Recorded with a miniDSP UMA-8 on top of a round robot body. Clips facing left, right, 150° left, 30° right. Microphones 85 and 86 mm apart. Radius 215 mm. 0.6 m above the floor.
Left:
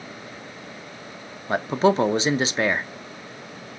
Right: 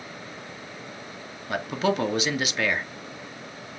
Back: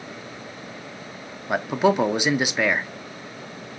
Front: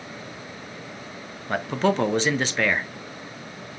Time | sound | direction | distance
1.5 | a man speaking | 85° left | 0.6 m